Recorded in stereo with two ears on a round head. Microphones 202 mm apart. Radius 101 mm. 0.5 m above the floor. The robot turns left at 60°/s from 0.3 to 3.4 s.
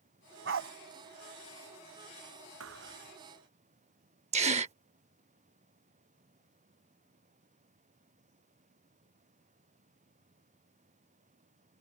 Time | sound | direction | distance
0.5 | a dog barking | 55° right (ahead or behind) | ?
2.6 | a thud | 110° right | ?
4.3 | a gasp | 30° right (ahead or behind) | ?